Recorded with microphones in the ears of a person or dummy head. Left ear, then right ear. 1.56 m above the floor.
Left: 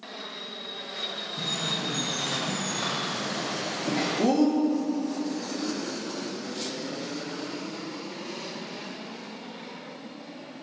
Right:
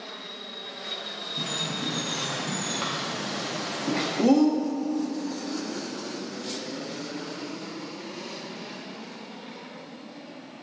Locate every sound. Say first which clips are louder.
1.4 s a bird: left 1 dB; 30° right (ahead or behind), 0.6 m